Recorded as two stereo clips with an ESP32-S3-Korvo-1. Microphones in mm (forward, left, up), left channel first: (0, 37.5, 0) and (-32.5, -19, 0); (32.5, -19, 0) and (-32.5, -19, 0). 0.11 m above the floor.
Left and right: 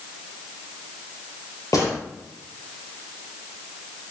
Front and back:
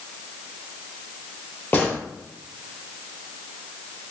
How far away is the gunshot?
About 1.9 m.